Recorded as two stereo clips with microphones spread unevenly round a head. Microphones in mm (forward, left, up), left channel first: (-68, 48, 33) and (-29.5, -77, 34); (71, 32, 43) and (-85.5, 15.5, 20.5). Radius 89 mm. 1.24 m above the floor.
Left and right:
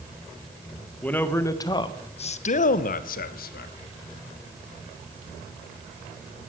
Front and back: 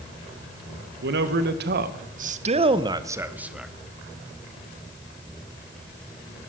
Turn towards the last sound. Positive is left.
turn(degrees=100)